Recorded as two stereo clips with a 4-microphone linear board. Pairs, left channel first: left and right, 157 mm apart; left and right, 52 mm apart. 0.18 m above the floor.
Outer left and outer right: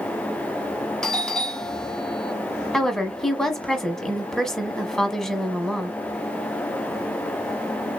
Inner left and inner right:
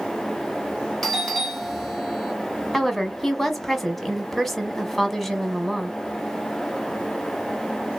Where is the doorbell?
5° left (ahead or behind), 1.9 m.